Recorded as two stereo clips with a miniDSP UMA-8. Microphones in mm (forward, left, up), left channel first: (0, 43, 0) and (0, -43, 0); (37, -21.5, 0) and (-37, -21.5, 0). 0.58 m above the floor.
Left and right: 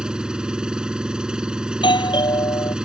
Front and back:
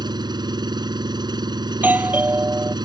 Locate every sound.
0.0 s an engine running: 170° right
1.7 s a doorbell: 115° left